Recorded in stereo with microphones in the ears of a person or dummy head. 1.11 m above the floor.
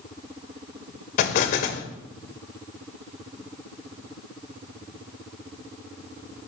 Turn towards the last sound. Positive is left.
turn(degrees=50)  # may be behind; listen again after turning